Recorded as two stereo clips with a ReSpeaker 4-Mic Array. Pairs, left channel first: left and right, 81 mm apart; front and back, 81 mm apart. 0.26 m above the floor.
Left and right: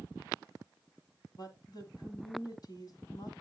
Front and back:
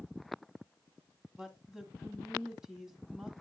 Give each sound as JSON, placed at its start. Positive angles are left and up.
{"t": 1.4, "sound": "a woman speaking", "azimuth_deg": 100, "distance_m": 1.6}